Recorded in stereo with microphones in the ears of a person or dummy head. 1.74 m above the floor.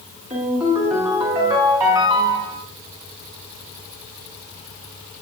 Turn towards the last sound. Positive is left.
turn(degrees=-20)  # may be behind; listen again after turning